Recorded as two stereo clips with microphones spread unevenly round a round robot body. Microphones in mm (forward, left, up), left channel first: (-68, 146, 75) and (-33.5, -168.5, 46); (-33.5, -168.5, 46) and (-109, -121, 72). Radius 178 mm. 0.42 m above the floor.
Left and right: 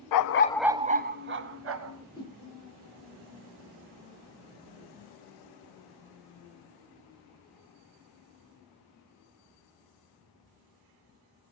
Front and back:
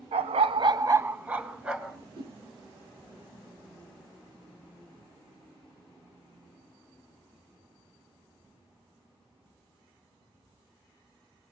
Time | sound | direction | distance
0.1 | a dog barking | 120° left | 0.6 m
1.9 | a whoosh | 175° left | 6 m